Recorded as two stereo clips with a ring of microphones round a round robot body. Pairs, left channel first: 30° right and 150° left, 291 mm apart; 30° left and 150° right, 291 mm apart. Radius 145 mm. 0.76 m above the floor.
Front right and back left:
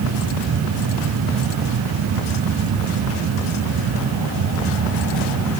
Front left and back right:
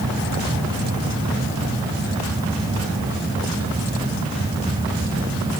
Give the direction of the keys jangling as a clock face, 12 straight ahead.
I don't hear keys jangling.